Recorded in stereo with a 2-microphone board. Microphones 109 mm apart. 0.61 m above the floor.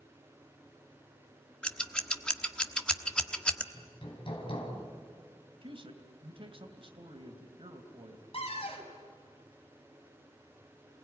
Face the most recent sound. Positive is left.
turn(degrees=60)  # may be behind; listen again after turning